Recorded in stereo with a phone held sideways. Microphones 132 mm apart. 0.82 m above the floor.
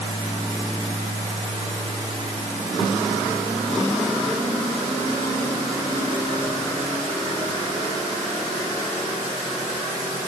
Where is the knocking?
I don't hear knocking.